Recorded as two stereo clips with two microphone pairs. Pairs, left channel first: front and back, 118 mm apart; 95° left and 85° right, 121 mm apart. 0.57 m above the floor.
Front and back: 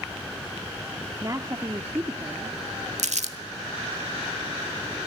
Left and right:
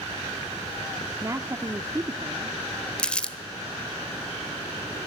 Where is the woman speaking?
135° right, 0.9 m.